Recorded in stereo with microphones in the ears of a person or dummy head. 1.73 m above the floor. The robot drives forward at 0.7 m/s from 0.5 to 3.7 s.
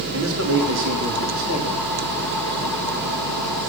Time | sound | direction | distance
0.1 | a man speaking | 75° right (ahead or behind) | 3 m